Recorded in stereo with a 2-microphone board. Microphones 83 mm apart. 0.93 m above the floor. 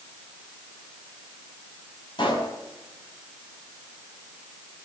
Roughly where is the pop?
Left.